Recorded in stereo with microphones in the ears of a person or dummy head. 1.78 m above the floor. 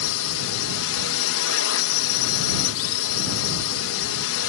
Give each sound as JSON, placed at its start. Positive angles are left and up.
{"t": 0.0, "sound": "a drone", "side_deg": 80}